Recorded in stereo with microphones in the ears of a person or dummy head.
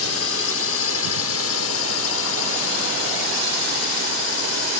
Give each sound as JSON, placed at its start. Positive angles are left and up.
{"t": 0.0, "sound": "a drone", "side_deg": 75}